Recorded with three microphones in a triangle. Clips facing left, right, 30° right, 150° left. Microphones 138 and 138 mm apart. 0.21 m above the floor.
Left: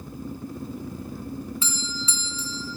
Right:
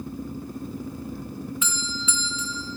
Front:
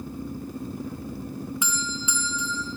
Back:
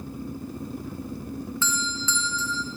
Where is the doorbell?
40° left, 3.5 m.